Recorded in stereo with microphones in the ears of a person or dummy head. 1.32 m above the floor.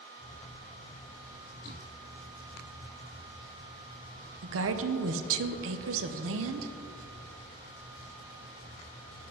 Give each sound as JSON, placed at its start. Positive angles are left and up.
{"t": 4.4, "sound": "a woman speaking", "side_deg": -65, "distance_m": 0.8}